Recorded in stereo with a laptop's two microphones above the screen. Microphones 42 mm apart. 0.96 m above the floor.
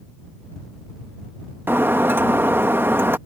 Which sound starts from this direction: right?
Breaking glass, at 1.7 s.